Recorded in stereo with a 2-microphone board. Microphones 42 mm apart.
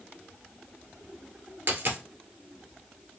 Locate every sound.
1.7 s a dropped coin: 65° right (ahead or behind), 1.2 m